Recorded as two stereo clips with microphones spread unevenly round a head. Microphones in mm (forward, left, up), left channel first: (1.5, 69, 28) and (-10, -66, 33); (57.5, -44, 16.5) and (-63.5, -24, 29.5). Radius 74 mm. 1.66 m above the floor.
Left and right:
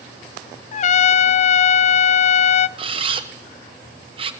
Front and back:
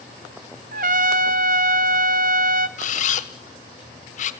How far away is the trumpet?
About 0.7 m.